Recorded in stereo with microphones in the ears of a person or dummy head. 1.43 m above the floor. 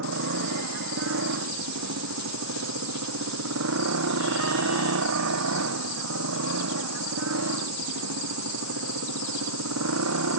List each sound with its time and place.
0.0 s a motorcycle: 70° right (ahead or behind); by 10.4 s 85° right